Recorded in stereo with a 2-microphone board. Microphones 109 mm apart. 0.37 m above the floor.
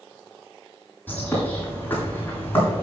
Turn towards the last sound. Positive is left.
turn(degrees=15)  # may be behind; listen again after turning